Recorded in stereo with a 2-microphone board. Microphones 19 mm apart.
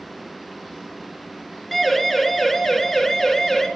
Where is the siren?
5° left (ahead or behind), 4.5 m; by 3.7 s 15° left (ahead or behind), 5.5 m.